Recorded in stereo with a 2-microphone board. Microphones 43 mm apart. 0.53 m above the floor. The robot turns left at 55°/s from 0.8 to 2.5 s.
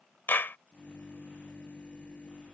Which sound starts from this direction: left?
A clap, at 0.3 s.